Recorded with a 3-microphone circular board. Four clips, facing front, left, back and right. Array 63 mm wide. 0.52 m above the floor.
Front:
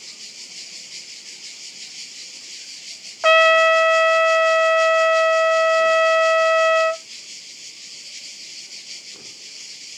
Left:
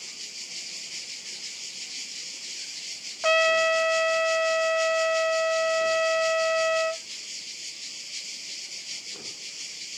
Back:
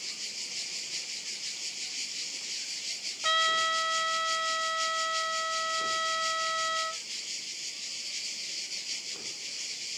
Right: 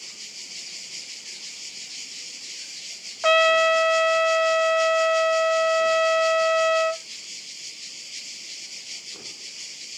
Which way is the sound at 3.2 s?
10° right.